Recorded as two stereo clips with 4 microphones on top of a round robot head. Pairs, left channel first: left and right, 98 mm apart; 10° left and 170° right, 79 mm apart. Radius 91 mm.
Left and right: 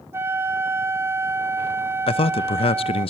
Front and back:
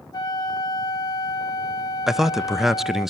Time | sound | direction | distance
0.1 | a flute | 25° right | 1.8 m
2.1 | a man speaking | 105° left | 0.8 m